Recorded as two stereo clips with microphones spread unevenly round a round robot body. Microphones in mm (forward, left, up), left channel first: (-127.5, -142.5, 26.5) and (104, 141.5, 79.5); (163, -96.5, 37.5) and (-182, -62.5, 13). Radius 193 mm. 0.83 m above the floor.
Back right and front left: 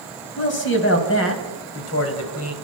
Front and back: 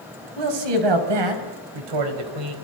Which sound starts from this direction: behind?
A man speaking, at 0.4 s.